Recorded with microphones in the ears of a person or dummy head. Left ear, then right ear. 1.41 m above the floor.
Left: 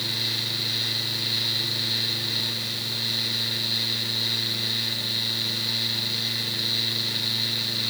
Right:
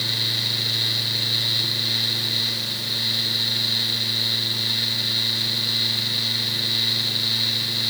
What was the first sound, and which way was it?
Only background noise.